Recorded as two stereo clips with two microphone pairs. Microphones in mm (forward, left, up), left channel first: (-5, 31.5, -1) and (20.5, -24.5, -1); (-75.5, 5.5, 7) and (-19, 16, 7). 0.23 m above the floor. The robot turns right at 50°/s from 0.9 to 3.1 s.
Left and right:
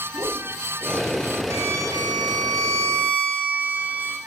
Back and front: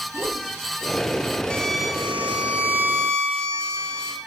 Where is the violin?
95° right, 3.5 m; by 4.2 s 15° right, 3.5 m.